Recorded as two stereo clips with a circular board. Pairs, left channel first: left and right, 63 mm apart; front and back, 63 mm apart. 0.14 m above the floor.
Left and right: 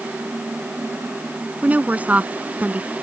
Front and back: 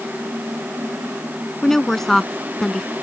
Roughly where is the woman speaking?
Right.